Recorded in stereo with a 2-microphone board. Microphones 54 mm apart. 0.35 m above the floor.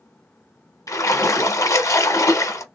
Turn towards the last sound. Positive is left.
turn(degrees=80)